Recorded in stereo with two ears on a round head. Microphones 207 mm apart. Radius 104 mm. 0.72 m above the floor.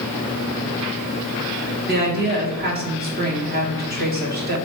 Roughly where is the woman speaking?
Right.